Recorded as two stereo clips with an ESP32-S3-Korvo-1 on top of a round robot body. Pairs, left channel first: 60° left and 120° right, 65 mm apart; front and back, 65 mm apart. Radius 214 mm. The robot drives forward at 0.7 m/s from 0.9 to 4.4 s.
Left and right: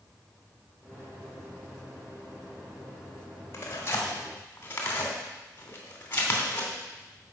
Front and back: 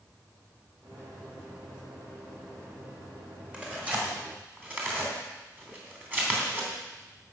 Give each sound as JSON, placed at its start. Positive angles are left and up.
{"t": 3.5, "sound": "tearing paper", "azimuth_deg": 105, "distance_m": 3.0}